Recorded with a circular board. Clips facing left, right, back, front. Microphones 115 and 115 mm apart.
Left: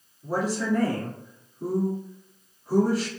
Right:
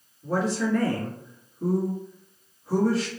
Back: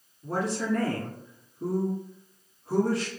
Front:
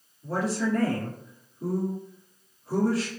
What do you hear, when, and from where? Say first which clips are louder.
0.2 s a woman speaking: right 1 dB, front 1 dB; 170° left, 1.4 m